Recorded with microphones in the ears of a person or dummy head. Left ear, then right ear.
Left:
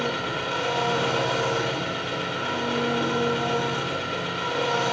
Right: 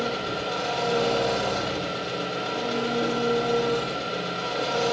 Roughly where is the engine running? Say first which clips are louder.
Left 1 dB; left.